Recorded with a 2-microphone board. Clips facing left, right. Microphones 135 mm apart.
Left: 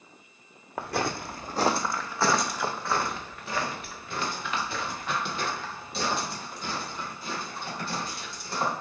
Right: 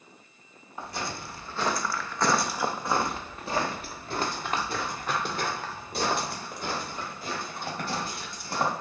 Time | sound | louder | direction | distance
0.8 | footsteps | left 6 dB | 70° left (ahead or behind) | 0.8 m